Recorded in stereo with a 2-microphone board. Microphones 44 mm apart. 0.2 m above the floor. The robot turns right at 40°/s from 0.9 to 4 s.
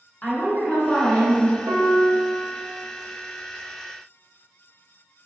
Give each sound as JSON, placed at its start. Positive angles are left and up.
{"t": 0.2, "sound": "a woman speaking", "side_deg": 40, "distance_m": 1.9}
{"t": 1.7, "sound": "a piano", "azimuth_deg": -95, "distance_m": 0.7}